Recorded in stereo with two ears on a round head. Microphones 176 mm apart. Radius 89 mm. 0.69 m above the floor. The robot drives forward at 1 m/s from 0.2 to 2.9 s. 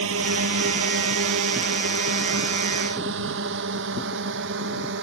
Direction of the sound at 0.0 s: 80° right.